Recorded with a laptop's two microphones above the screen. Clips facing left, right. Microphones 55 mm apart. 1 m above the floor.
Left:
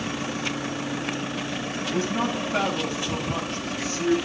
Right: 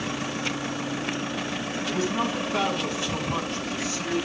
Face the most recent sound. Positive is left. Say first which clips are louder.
# left 1 dB
turn(degrees=45)  # may be behind; listen again after turning